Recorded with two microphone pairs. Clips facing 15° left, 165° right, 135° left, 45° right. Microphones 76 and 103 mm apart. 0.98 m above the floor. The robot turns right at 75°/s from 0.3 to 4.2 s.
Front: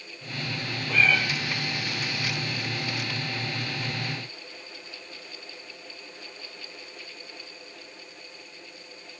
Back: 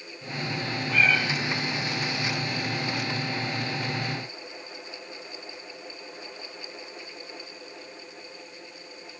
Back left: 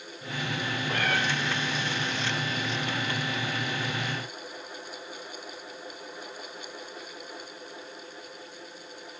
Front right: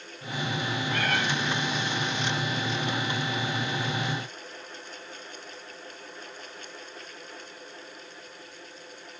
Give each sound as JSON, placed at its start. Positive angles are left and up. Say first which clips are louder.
{"t": 0.9, "sound": "a cat meowing", "louder": "even, even", "azimuth_deg": 115, "distance_m": 4.0}